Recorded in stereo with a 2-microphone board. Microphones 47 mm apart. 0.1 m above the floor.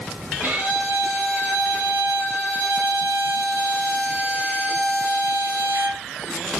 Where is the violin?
40° right (ahead or behind), 1.0 m.